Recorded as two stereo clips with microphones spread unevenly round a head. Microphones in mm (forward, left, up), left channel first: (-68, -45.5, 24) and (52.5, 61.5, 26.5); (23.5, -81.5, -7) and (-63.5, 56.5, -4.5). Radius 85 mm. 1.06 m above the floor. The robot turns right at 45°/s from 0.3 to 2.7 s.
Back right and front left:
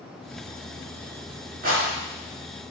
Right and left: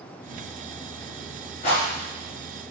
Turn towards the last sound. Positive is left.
turn(degrees=45)